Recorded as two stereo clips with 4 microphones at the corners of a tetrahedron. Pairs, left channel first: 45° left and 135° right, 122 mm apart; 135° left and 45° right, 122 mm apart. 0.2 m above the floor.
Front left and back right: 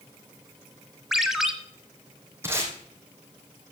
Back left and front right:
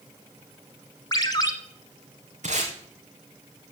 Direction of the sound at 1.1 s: 140° left.